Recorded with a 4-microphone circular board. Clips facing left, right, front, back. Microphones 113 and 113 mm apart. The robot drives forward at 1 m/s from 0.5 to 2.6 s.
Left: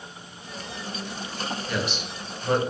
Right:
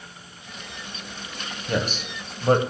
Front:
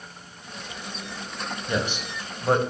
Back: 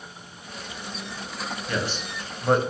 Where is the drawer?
No drawer in this recording.